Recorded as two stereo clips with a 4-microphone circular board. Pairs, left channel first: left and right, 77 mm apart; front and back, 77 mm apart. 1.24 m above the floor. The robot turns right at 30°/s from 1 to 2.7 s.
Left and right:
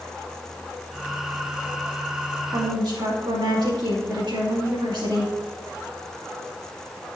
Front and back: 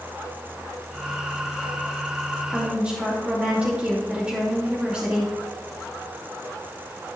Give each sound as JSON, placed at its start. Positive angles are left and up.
{"t": 2.5, "sound": "a woman speaking", "azimuth_deg": -115, "distance_m": 3.0}